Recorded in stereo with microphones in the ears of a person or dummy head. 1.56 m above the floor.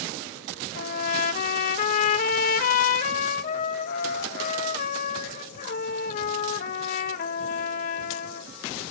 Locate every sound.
0.8 s a trumpet: 45° left (ahead or behind), 0.9 m